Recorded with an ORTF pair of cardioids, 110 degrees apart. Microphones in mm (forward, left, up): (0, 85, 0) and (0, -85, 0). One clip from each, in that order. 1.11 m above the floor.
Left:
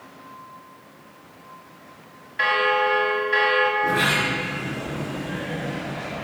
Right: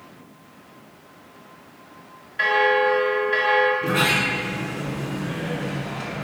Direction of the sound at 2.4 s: Straight ahead.